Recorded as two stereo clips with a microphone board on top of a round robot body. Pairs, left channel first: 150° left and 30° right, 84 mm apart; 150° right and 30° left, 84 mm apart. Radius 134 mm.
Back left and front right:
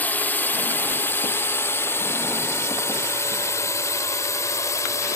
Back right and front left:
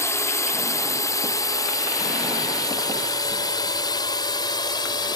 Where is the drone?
160° right; by 5.2 s 165° right.